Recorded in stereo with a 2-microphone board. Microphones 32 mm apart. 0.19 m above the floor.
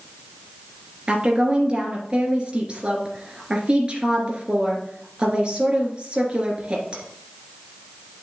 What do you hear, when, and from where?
1.1 s a woman speaking: 35° right (ahead or behind), 2.5 m